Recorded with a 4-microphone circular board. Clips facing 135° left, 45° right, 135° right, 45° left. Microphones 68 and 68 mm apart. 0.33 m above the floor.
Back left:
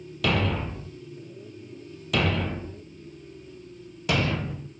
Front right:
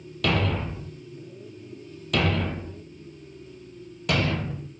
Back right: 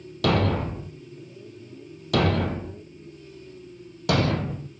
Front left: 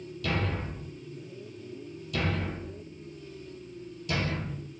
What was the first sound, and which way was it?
A thud, 135° right.